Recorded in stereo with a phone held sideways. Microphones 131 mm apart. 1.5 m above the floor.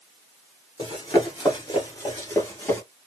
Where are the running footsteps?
30° left (ahead or behind), 1.7 m; by 2.8 s 20° left (ahead or behind), 1.7 m.